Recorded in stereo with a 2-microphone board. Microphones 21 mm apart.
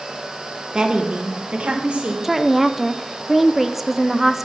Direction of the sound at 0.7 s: 40° right (ahead or behind).